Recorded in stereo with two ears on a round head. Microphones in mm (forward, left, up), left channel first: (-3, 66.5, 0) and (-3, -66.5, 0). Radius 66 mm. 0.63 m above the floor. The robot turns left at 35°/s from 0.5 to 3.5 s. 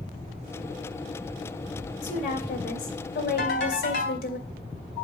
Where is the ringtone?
70° left (ahead or behind), 3.5 m.